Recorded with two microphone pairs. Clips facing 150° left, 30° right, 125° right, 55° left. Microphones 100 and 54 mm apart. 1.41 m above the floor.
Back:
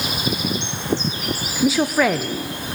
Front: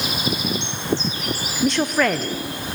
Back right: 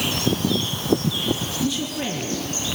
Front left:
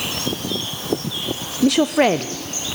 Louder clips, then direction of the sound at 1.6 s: Back 2 dB, front left 12 dB; 70° left.